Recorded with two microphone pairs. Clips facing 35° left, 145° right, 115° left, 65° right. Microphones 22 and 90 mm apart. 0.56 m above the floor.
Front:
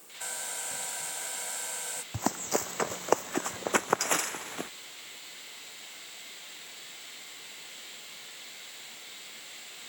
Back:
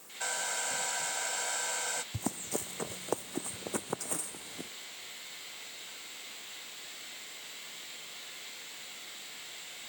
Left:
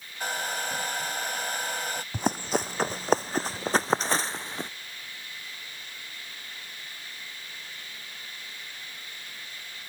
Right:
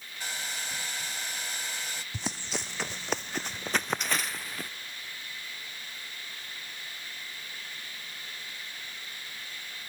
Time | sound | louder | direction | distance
0.2 | a hair dryer | back 4 dB, left 8 dB | 150° left | ?
2.1 | running footsteps | front 6 dB, left 10 dB | 75° left | ?